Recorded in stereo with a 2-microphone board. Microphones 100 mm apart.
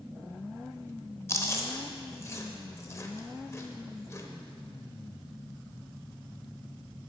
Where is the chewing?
30° left (ahead or behind), 0.7 m.